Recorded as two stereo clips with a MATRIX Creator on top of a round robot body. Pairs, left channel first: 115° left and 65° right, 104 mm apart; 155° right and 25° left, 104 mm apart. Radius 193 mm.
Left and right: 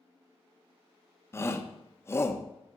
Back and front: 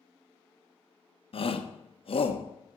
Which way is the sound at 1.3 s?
Straight behind.